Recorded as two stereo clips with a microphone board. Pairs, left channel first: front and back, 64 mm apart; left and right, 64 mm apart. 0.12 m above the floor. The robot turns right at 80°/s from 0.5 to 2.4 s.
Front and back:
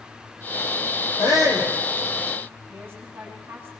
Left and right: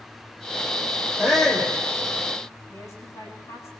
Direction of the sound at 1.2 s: 15° right.